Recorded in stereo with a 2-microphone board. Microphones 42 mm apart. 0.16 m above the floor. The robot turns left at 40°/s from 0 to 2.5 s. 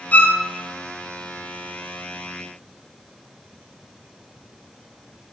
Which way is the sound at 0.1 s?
35° left (ahead or behind).